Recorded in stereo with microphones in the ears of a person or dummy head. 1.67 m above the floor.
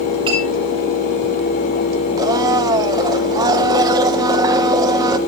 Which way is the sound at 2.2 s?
20° right (ahead or behind).